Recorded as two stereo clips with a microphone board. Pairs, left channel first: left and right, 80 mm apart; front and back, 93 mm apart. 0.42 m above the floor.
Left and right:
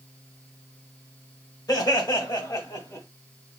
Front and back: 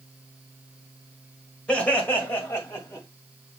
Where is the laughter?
75° left, 1.5 m; by 3.0 s 55° left, 2 m.